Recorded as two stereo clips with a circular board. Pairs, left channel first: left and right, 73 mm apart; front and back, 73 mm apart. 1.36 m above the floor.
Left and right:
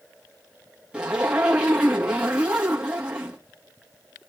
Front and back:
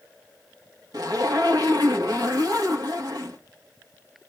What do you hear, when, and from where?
0.9 s a zipper: 165° right, 2 m